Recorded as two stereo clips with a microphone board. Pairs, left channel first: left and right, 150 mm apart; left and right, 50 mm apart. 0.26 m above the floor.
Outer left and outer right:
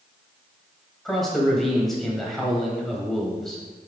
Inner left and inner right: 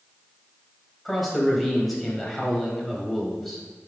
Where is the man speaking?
Centre (ahead or behind), 1.4 m.